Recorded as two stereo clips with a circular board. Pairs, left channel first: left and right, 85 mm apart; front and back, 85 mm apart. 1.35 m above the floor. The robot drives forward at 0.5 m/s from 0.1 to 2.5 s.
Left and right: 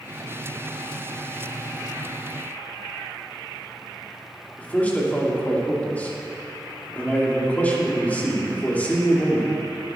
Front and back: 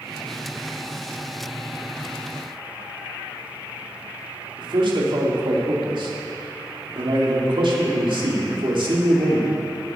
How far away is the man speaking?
About 2.5 m.